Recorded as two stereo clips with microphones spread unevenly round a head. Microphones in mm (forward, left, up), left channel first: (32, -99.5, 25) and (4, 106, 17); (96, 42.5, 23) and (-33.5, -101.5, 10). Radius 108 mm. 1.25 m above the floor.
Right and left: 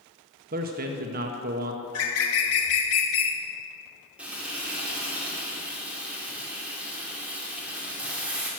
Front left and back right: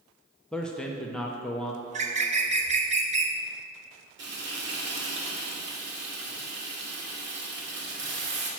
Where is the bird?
80° right, 1.4 m.